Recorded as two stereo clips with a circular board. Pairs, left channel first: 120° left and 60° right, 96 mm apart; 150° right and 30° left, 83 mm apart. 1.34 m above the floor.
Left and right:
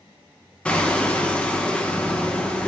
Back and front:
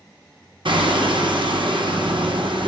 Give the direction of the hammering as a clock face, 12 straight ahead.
11 o'clock.